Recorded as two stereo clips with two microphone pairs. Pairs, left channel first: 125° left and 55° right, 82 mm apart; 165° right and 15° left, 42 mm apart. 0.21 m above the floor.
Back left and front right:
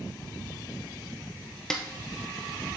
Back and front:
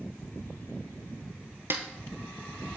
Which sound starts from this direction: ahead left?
A snare drum, at 1.7 s.